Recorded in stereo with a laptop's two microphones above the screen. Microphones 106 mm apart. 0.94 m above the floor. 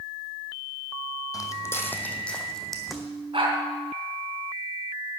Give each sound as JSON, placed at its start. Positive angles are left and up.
{"t": 1.3, "sound": "footsteps", "side_deg": 35, "distance_m": 1.6}
{"t": 3.3, "sound": "a dog barking", "side_deg": -55, "distance_m": 3.5}